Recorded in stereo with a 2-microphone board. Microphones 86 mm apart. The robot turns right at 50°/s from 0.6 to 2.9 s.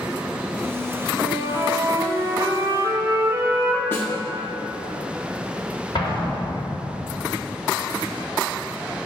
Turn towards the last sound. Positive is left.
turn(degrees=60)  # may be behind; listen again after turning